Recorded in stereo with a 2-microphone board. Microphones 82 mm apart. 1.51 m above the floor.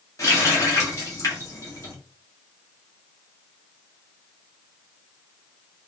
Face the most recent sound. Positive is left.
turn(degrees=40)  # may be behind; listen again after turning